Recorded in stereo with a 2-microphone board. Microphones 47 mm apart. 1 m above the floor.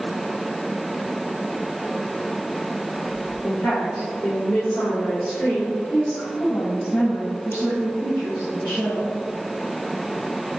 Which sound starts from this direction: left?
A woman speaking, at 3.4 s.